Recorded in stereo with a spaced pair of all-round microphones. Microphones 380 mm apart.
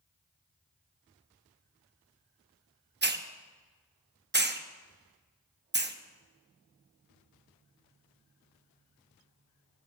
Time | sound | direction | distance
3.0 | a hiss | 30° right (ahead or behind) | 0.6 m